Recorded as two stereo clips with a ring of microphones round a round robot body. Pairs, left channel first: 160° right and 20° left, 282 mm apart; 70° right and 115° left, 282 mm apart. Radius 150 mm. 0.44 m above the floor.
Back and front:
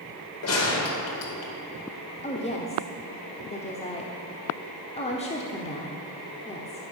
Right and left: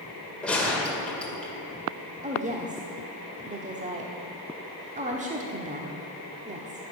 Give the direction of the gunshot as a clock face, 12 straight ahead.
5 o'clock.